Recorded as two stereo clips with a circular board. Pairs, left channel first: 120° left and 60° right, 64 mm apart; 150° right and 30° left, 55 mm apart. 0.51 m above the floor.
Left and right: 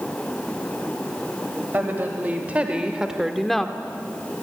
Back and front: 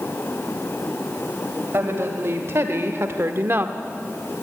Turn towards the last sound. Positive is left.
turn(degrees=45)